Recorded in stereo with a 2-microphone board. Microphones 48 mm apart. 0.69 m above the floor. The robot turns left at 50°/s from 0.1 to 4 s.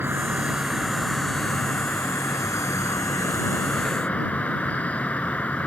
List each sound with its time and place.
0.0 s an insect: 135° right; by 5.7 s 30° left